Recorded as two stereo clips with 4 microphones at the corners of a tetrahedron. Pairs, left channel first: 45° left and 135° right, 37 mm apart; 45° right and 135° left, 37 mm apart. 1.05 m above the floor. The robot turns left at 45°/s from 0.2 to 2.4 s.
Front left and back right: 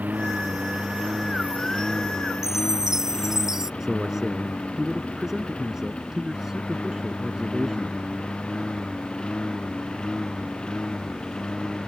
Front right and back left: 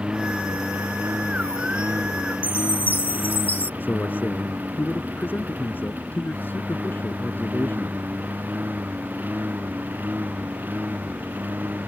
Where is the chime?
60° right.